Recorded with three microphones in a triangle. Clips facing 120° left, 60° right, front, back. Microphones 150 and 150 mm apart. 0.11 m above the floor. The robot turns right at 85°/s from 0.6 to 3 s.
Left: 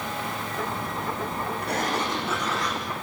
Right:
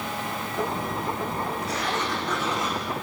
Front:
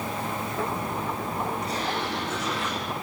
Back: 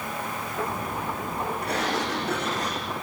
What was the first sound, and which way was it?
A sliding door, 145° left.